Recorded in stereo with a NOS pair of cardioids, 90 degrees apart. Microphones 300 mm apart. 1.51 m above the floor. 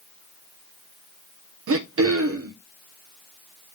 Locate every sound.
1.7 s throat clearing: 50° right, 1.4 m